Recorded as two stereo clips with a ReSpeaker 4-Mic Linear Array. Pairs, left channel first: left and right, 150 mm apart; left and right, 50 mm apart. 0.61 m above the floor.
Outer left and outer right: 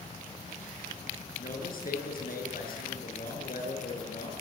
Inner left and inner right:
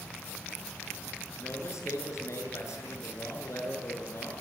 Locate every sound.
1.4 s a man speaking: 75° left (ahead or behind), 8 m